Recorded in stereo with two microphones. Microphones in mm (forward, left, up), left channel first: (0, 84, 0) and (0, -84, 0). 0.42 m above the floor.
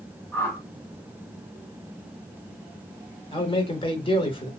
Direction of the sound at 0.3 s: 10° left (ahead or behind).